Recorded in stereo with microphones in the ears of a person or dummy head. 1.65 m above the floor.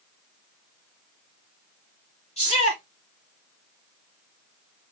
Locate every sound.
2.4 s a shout: 35° left (ahead or behind), 3 m